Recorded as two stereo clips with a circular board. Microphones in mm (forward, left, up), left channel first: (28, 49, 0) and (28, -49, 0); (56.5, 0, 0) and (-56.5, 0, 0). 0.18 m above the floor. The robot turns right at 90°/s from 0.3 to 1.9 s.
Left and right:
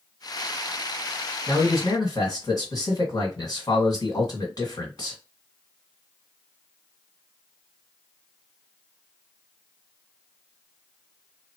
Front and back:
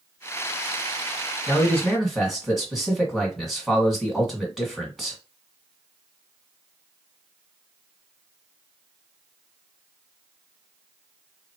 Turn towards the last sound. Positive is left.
turn(degrees=90)